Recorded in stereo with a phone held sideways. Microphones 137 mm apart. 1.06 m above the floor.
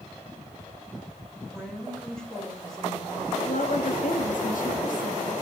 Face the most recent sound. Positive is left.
turn(degrees=70)  # may be behind; listen again after turning